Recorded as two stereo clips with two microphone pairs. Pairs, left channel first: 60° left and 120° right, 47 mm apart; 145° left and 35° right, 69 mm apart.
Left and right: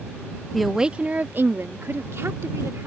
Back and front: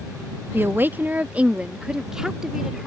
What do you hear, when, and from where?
0.5 s a woman speaking: 25° right; by 2.9 s 115° right